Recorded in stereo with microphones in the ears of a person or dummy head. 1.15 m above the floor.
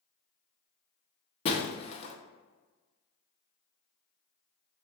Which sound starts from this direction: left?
Breaking glass, at 1.4 s.